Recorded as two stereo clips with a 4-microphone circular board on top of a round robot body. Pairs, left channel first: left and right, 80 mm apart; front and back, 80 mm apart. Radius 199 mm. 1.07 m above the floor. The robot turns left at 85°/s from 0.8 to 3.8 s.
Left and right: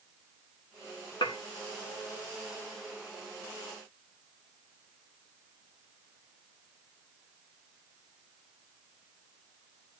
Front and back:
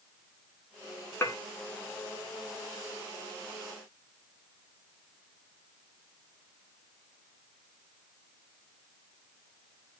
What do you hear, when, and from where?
1.2 s dishes clattering: 65° left, 1.9 m; by 1.4 s 50° left, 1.9 m